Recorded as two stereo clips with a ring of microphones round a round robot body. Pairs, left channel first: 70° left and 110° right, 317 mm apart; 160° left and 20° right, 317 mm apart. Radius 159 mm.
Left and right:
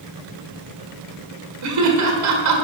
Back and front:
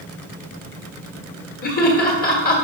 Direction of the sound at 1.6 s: 140° right.